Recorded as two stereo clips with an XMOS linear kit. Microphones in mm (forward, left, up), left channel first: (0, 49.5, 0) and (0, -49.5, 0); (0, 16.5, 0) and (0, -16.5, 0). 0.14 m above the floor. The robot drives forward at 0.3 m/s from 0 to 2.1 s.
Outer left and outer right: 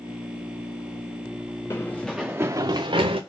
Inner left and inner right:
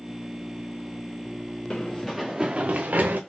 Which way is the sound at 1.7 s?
30° left (ahead or behind).